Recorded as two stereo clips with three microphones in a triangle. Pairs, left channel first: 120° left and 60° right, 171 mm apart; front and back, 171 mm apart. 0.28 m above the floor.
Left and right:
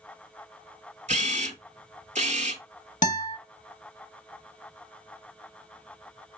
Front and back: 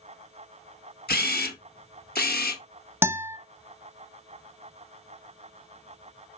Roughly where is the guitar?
Left.